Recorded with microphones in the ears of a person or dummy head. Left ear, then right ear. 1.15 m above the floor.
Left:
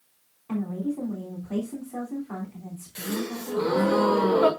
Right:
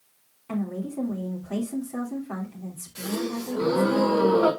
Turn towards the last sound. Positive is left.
turn(degrees=30)  # may be behind; listen again after turning